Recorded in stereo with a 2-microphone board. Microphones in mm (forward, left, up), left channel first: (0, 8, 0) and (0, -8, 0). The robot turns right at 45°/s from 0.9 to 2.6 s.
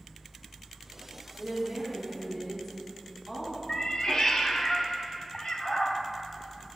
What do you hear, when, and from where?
1.4 s a woman speaking: 20° right, 3.5 m; by 3.6 s 35° left, 3.5 m
3.7 s a cat meowing: 40° left (ahead or behind), 1.2 m